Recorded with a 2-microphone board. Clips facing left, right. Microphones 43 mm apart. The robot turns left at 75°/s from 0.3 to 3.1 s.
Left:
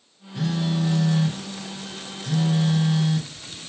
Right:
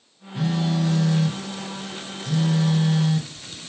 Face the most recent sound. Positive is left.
turn(degrees=-5)